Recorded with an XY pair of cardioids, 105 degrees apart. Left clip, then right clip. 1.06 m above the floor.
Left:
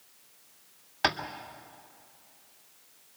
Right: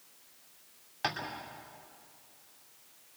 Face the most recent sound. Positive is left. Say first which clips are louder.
# left 7 dB
turn(degrees=50)